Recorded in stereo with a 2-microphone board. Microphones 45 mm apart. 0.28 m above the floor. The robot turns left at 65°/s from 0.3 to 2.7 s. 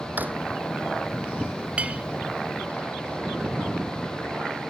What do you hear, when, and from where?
0.2 s a drawer: 40° right (ahead or behind)
1.8 s a clink: 30° right (ahead or behind)